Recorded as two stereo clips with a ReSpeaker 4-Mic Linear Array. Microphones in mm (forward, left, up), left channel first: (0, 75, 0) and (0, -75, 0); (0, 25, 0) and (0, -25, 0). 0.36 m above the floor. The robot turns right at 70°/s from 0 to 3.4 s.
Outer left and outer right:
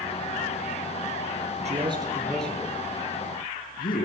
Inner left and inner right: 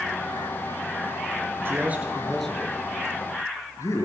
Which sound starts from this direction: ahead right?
A man speaking, at 1.6 s.